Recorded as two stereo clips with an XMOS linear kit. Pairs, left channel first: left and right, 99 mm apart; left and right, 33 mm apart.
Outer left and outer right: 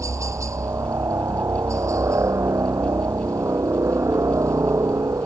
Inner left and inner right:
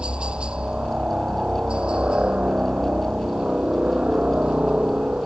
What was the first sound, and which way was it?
A helicopter, 30° right (ahead or behind).